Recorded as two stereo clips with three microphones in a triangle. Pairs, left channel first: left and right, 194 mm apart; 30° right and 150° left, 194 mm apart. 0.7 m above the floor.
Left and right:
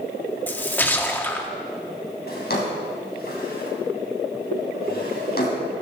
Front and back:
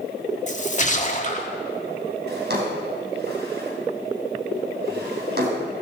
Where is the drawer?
120° left, 3.5 m.